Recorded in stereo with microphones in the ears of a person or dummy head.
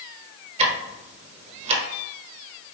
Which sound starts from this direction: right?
Ticking, at 0.6 s.